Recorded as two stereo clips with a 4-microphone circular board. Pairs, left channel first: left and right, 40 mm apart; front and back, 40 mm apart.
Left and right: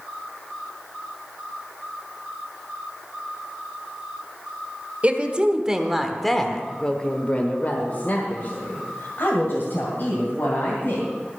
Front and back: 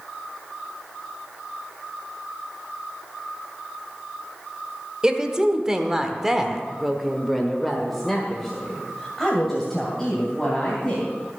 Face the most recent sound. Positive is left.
turn(degrees=80)